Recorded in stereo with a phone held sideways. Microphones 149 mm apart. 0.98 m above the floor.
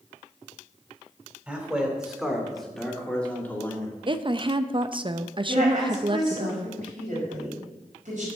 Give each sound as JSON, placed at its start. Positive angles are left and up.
{"t": 1.5, "sound": "a man speaking", "side_deg": -10, "distance_m": 2.5}
{"t": 4.1, "sound": "a woman speaking", "side_deg": -35, "distance_m": 0.6}
{"t": 5.5, "sound": "a woman speaking", "side_deg": -65, "distance_m": 5.5}